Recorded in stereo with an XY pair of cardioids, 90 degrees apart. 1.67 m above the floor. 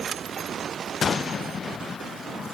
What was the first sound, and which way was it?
Only background noise.